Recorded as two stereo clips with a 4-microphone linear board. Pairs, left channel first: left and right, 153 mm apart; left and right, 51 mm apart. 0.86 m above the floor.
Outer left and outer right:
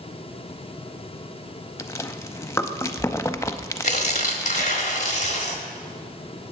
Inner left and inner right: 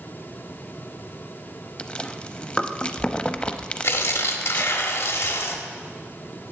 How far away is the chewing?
About 0.6 m.